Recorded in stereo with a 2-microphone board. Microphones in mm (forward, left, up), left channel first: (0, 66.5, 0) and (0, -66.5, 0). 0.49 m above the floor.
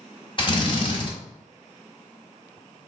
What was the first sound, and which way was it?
A drill, 40° left (ahead or behind).